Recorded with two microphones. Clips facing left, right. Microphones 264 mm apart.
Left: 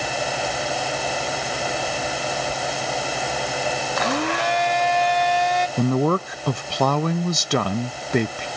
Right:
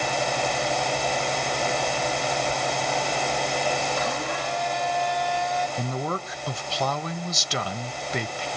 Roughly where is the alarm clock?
I don't hear an alarm clock.